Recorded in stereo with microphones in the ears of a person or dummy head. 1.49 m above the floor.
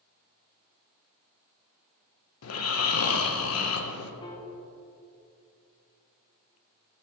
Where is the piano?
25° left (ahead or behind), 0.8 m.